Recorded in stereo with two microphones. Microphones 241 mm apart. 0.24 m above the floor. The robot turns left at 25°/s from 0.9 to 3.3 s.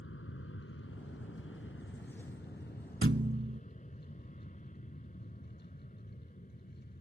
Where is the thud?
60° right (ahead or behind); by 3.6 s 55° right (ahead or behind).